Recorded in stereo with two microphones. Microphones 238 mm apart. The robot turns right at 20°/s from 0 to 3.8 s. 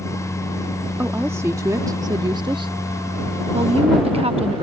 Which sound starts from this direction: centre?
A woman speaking, at 1.0 s.